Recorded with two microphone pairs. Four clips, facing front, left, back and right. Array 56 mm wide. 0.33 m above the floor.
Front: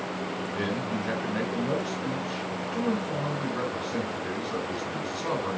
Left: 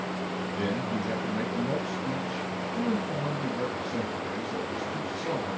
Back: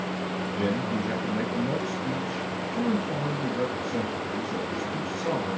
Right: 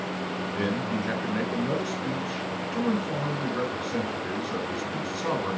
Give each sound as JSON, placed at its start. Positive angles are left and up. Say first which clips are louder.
{"t": 0.5, "sound": "a man speaking", "louder": "right 2 dB, back 3 dB", "azimuth_deg": -60, "distance_m": 4.0}